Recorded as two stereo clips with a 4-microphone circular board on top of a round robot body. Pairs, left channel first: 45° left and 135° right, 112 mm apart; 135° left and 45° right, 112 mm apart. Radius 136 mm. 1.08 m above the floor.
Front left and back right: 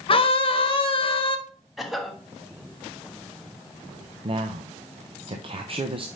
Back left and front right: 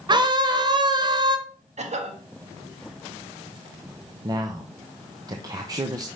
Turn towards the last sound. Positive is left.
turn(degrees=-100)